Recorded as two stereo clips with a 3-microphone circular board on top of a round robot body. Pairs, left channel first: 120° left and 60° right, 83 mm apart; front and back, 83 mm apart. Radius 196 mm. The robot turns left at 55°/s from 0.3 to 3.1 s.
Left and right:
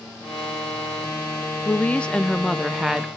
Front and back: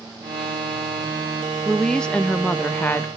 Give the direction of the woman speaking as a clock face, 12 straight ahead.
9 o'clock.